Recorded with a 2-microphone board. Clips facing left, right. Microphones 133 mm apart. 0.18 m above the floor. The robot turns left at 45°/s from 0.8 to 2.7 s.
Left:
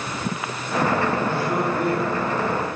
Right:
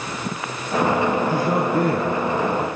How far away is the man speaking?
About 3.5 m.